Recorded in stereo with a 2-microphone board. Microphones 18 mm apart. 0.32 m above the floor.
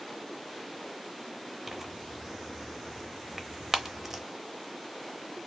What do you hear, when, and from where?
1.7 s tearing paper: 20° right (ahead or behind), 0.6 m